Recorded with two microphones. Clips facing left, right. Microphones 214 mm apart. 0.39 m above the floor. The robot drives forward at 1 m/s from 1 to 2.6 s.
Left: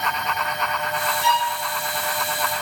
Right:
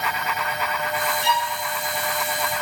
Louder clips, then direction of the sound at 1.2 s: Left 1 dB; 45° right (ahead or behind).